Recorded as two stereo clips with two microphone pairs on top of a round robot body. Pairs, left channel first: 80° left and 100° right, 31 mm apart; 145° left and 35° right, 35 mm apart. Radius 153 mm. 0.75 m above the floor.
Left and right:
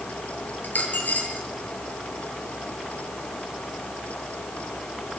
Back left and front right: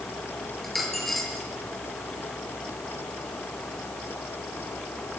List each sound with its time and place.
0.6 s a dropped coin: 55° left, 7 m